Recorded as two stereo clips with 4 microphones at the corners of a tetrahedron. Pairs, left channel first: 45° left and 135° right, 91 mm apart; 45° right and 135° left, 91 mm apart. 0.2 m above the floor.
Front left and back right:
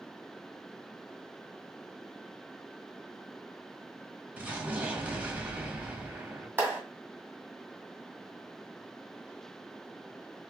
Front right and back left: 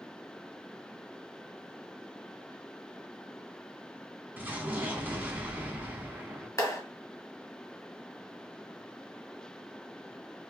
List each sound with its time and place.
4.4 s an explosion: 175° left, 0.9 m
6.6 s a clap: 80° right, 1.8 m